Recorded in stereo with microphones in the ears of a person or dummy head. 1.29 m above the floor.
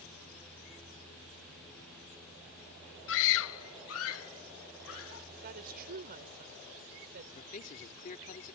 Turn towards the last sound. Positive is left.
turn(degrees=45)  # may be behind; listen again after turning